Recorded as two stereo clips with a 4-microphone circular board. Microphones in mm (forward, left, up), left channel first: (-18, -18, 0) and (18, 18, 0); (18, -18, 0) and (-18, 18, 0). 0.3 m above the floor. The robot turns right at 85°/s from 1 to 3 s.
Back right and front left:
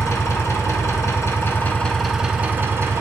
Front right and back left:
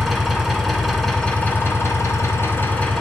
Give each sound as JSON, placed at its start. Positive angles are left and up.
{"t": 0.0, "sound": "an engine running", "azimuth_deg": -135, "distance_m": 1.6}